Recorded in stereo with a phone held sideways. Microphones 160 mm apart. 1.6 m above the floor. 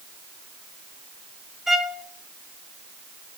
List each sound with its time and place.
1.7 s a violin: centre (ahead or behind), 1.5 m